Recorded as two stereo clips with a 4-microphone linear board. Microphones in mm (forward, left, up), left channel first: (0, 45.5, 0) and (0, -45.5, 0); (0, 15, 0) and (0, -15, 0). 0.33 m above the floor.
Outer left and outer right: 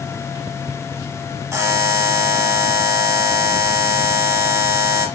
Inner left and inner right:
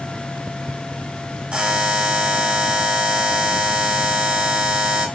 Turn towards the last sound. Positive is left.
turn(degrees=-35)  # may be behind; listen again after turning